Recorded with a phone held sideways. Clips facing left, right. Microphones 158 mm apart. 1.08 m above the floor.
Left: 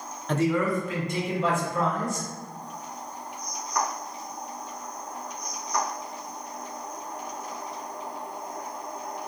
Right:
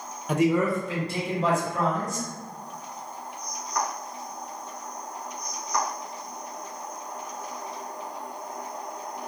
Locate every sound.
0.3 s a man speaking: 10° right (ahead or behind), 0.5 m; by 2.3 s 40° right (ahead or behind), 1.9 m